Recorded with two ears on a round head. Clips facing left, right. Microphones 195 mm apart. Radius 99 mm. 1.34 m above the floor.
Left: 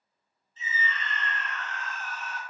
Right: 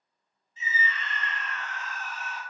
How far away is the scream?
About 0.9 m.